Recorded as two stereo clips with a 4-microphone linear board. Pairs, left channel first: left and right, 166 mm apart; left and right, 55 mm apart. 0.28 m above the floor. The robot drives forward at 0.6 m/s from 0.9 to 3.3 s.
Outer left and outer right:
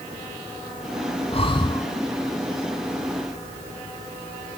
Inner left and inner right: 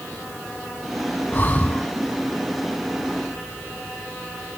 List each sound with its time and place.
1.3 s breathing: 35° left (ahead or behind), 0.6 m; by 1.9 s 25° left (ahead or behind), 0.9 m